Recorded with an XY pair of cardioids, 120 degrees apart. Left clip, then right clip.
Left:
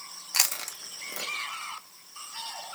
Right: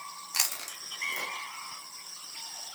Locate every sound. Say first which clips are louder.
0.3 s chewing: left 4 dB; 25° left, 0.7 m